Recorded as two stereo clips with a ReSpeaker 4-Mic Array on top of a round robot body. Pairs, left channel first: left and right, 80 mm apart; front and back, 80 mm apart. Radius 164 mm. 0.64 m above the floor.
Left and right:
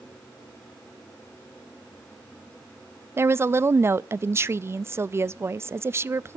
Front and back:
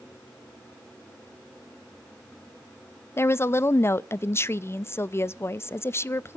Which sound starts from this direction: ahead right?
A woman speaking, at 3.2 s.